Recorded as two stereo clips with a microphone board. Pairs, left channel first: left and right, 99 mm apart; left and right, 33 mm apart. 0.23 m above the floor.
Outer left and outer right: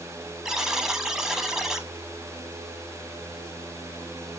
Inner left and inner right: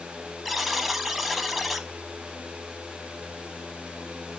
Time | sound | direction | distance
0.5 | a buzzer | 5° right (ahead or behind) | 0.7 m